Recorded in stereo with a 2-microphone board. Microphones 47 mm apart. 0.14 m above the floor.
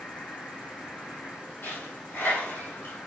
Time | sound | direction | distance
0.0 | an insect | 20° left (ahead or behind) | 0.9 m
1.6 | a dropped coin | 45° left (ahead or behind) | 2.5 m